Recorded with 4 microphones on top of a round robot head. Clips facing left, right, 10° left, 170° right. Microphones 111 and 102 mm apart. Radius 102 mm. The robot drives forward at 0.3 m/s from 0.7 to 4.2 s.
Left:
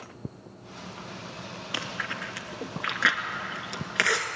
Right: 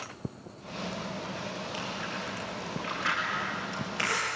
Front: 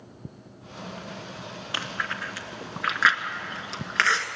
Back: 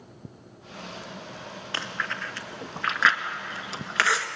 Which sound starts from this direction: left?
Chewing, at 1.7 s.